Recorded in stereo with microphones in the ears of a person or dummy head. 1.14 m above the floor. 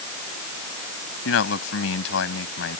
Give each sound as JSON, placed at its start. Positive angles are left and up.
{"t": 1.2, "sound": "a man speaking", "side_deg": 85}